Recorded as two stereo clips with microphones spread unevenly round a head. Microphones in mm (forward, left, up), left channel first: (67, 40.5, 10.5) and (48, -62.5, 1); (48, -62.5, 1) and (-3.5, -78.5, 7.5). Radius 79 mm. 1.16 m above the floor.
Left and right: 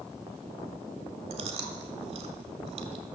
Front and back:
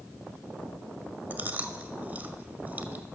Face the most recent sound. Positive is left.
turn(degrees=-120)